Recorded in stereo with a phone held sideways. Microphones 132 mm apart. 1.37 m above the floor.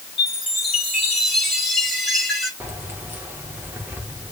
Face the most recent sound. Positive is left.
turn(degrees=-15)  # may be behind; listen again after turning